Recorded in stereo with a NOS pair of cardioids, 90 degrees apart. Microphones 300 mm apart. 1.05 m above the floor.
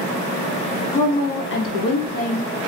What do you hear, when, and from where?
0.9 s a woman speaking: 25° left, 1.1 m; by 2.5 s 70° left, 1.1 m